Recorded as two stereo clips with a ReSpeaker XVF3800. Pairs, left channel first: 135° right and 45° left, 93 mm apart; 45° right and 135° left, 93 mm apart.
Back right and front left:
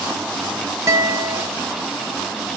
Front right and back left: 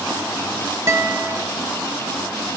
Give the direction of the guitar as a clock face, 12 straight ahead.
9 o'clock.